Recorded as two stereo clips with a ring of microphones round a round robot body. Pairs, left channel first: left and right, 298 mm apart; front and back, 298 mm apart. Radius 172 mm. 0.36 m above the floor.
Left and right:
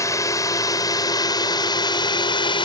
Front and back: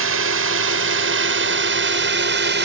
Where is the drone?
165° left; by 2.6 s 155° left.